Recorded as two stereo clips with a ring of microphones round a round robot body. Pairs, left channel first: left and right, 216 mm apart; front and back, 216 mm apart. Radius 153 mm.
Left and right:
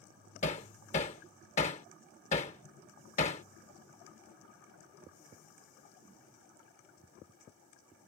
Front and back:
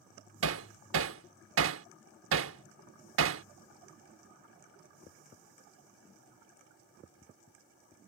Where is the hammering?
155° left.